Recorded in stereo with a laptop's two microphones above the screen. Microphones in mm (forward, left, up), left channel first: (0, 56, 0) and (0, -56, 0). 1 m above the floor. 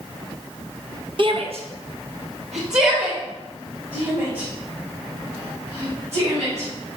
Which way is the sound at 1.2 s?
45° right (ahead or behind).